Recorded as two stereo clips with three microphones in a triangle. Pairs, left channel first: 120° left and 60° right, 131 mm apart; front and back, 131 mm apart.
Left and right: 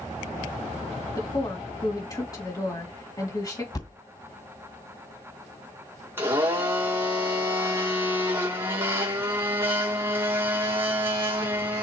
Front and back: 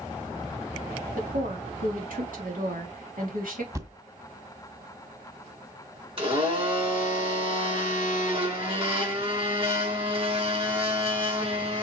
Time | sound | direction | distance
1.2 | a woman speaking | 175° right | 3 m
3.7 | a thud | 140° left | 1.7 m
6.2 | a blender | 135° right | 4 m